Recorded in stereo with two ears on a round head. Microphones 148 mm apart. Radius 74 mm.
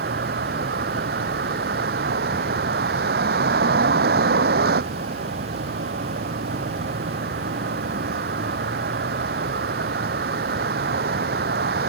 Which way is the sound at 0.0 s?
60° right (ahead or behind).